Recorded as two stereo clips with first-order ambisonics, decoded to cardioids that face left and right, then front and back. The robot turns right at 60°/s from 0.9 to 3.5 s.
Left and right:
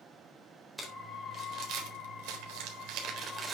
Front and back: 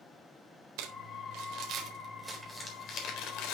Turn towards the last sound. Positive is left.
turn(degrees=-20)